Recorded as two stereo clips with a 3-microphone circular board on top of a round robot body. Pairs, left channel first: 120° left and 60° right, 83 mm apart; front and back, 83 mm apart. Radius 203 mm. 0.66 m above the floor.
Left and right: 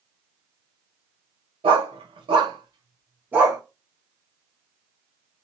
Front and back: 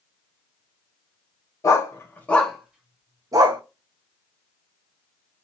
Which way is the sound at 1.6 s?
55° right.